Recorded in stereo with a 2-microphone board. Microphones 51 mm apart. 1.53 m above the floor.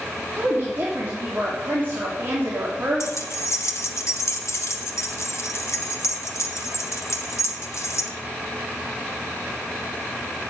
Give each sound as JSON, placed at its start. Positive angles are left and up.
{"t": 0.4, "sound": "a woman speaking", "side_deg": -40, "distance_m": 3.5}
{"t": 3.0, "sound": "keys jangling", "side_deg": 60, "distance_m": 1.3}